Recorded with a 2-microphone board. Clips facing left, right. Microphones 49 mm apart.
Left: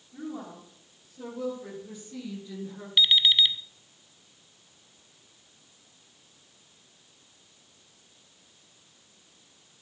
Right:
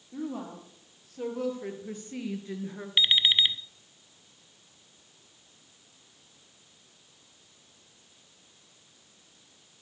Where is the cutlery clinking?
I don't hear cutlery clinking.